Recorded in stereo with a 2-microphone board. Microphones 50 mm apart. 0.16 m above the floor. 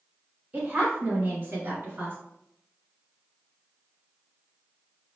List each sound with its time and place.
0.5 s a woman speaking: 30° right (ahead or behind), 1.9 m; by 2.2 s 45° right (ahead or behind), 1.9 m